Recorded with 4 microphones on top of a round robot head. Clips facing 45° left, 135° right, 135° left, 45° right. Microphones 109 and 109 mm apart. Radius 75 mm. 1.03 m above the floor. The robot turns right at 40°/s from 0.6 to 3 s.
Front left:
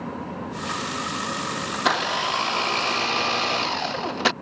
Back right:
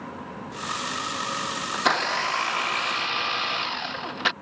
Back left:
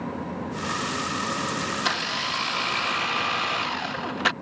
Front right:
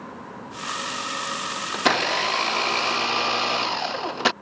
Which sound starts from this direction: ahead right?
A blender, at 1.7 s.